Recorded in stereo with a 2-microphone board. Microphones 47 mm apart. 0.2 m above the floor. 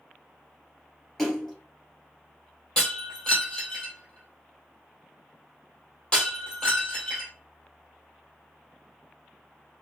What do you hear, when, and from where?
1.2 s a splash: 5° left (ahead or behind), 2.5 m
2.8 s breaking glass: 15° left (ahead or behind), 2 m